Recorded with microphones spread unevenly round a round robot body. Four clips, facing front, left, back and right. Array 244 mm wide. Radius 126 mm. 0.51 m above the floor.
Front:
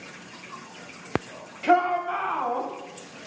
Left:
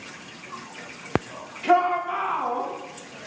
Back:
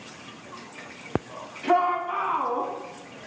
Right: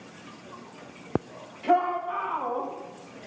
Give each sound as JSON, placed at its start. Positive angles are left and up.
{"t": 1.6, "sound": "a shout", "azimuth_deg": 10, "distance_m": 3.5}